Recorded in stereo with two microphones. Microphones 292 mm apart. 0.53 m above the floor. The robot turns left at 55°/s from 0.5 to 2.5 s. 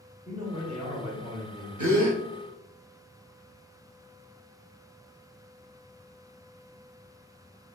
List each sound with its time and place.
0.2 s a man speaking: 30° right, 1.1 m; by 1.7 s 95° right, 1.1 m
1.8 s a gasp: 75° right (ahead or behind), 0.8 m; by 2.2 s 65° right (ahead or behind), 0.8 m